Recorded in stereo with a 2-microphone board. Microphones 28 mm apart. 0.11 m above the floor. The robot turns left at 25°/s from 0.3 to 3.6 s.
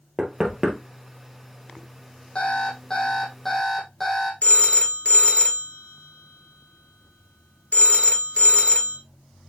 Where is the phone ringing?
50° left (ahead or behind), 1.4 m.